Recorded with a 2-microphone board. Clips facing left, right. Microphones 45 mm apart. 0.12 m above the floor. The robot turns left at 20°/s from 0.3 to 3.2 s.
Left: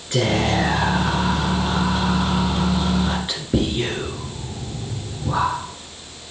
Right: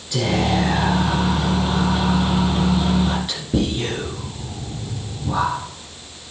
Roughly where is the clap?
No clap in this recording.